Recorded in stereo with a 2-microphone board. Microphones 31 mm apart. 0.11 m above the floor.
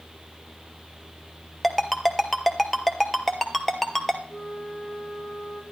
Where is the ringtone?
5° left (ahead or behind), 0.9 m.